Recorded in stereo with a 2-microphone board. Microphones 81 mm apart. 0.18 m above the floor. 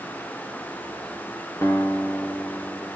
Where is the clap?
No clap in this recording.